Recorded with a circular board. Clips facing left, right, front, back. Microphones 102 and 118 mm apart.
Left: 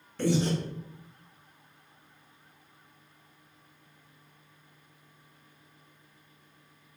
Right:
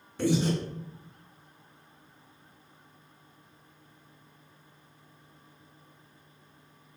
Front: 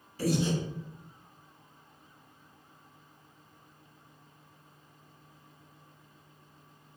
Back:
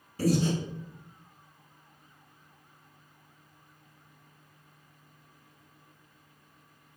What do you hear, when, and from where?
0.2 s breathing: 165° right, 1.0 m